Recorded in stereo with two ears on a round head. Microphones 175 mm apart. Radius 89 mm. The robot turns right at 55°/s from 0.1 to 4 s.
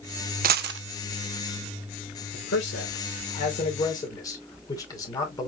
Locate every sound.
0.4 s a dropped coin: 45° right (ahead or behind), 0.5 m; by 0.8 s 65° right (ahead or behind), 0.5 m
2.3 s a man speaking: 65° left, 2.5 m; by 5.5 s 160° left, 2.5 m